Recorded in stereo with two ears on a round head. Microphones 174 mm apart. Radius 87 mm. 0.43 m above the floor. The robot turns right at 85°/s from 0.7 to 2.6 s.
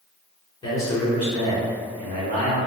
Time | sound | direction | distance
0.6 | a man speaking | 145° left | 1.9 m